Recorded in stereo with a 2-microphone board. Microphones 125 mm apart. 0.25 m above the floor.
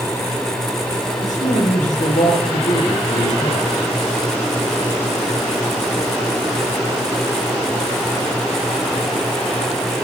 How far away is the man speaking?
About 7.5 m.